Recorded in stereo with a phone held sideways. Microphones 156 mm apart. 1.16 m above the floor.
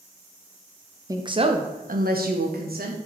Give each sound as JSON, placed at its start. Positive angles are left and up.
{"t": 1.1, "sound": "a woman speaking", "side_deg": -20, "distance_m": 0.9}